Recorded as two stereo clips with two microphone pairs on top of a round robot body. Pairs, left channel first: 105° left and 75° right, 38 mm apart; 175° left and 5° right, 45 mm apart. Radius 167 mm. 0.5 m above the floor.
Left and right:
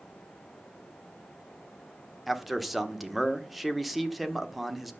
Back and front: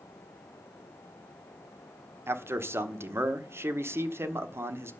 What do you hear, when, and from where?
2.3 s a man speaking: 10° left, 1.4 m